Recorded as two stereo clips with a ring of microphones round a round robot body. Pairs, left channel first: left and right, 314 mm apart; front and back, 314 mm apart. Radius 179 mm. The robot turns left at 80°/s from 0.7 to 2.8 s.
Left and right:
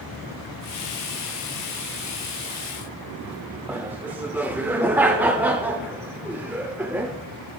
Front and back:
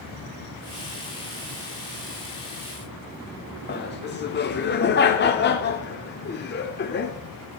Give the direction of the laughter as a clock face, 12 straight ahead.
12 o'clock.